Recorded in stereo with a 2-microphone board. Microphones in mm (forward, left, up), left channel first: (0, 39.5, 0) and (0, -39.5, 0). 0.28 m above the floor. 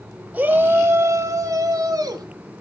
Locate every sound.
0.3 s a shout: 15° right (ahead or behind), 1.5 m; by 2.2 s 50° right (ahead or behind), 2.5 m